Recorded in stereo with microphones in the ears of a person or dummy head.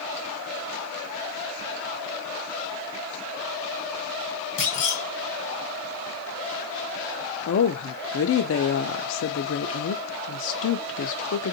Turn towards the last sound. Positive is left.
turn(degrees=65)  # may be behind; listen again after turning